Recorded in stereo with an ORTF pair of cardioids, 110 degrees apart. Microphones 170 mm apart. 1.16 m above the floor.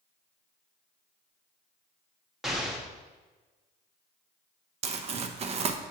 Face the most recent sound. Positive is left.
turn(degrees=-40)